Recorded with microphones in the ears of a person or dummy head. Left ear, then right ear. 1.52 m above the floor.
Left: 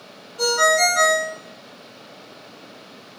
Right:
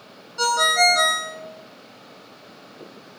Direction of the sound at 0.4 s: 40° right (ahead or behind).